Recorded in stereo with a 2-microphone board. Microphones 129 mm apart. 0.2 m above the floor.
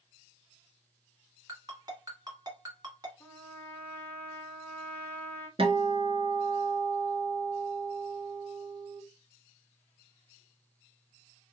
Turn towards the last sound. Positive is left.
turn(degrees=-45)  # may be behind; listen again after turning